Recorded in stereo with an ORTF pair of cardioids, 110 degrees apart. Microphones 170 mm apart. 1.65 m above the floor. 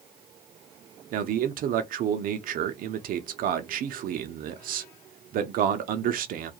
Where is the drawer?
No drawer in this recording.